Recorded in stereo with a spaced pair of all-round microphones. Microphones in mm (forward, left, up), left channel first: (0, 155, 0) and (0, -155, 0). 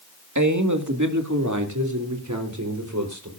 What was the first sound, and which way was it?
A man speaking, 70° right (ahead or behind).